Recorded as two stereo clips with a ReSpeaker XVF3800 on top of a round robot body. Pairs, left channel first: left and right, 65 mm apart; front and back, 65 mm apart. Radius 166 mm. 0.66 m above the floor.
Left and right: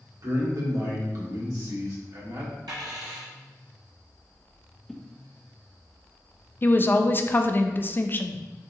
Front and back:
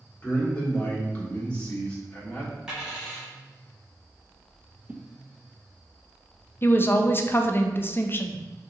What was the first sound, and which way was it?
A man speaking, 65° right.